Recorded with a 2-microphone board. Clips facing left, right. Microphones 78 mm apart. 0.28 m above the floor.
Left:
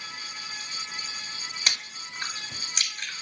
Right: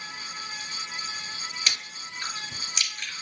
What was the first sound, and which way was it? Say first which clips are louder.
Chewing: left 3 dB; 40° left (ahead or behind).